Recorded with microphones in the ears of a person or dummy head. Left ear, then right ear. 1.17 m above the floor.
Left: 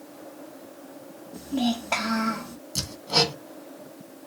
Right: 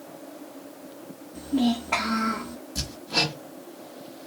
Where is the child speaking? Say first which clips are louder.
Right 2 dB; 85° left, 1.5 m.